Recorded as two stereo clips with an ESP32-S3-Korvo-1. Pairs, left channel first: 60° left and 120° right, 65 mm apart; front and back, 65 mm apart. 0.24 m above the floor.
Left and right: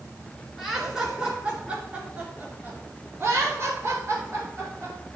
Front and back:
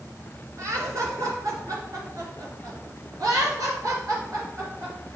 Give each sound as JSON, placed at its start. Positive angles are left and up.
{"t": 0.6, "sound": "laughter", "azimuth_deg": 155, "distance_m": 3.5}